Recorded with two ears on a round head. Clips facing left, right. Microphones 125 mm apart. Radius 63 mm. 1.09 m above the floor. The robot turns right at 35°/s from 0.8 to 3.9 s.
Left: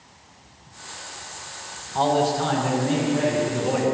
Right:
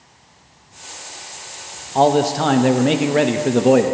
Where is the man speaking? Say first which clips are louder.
Right 5 dB; 125° right, 0.7 m; by 3.9 s 60° right, 0.7 m.